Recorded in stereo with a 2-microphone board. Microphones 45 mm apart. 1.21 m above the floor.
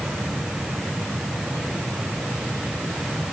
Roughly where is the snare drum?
I don't hear a snare drum.